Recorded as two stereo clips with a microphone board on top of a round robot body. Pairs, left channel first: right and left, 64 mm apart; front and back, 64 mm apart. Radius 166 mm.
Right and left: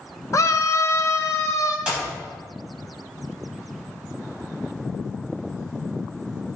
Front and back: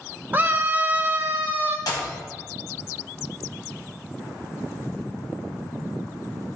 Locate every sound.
0.3 s a scream: 120° right, 1.1 m
1.9 s a clap: 15° left, 3.5 m